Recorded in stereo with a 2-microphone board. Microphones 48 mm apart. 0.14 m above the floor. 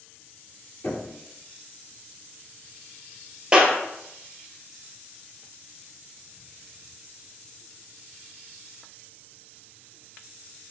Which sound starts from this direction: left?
Knocking, at 0.8 s.